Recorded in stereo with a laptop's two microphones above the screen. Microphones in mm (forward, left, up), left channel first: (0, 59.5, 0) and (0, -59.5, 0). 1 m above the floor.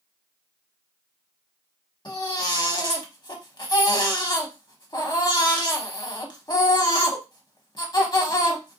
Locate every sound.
2.0 s a baby crying: 35° left (ahead or behind), 0.9 m